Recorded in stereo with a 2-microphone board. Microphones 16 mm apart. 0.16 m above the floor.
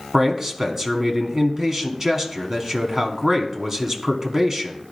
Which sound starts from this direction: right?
A man speaking, at 0.1 s.